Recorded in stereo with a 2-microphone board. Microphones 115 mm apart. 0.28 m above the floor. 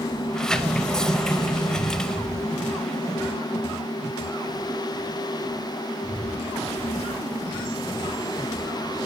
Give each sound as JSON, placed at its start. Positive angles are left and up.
{"t": 0.3, "sound": "a sliding door", "side_deg": 5, "distance_m": 0.7}